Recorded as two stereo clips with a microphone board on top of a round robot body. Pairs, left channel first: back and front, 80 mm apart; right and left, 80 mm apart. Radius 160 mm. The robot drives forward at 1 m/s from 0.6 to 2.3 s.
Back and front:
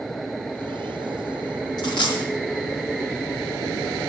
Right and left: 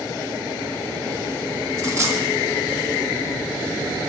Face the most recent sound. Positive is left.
turn(degrees=150)